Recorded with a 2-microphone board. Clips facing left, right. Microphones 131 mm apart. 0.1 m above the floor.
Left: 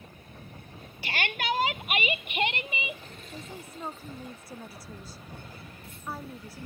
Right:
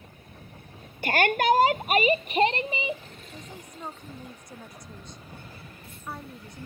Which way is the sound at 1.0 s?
50° right (ahead or behind).